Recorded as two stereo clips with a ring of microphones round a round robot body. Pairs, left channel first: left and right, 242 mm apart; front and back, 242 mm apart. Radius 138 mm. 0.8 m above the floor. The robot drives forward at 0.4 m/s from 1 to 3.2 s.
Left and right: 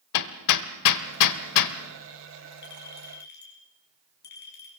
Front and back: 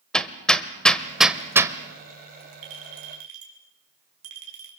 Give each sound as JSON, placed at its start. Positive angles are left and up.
{"t": 0.1, "sound": "hammering", "azimuth_deg": 90, "distance_m": 1.2}
{"t": 2.6, "sound": "a clink", "azimuth_deg": 145, "distance_m": 5.5}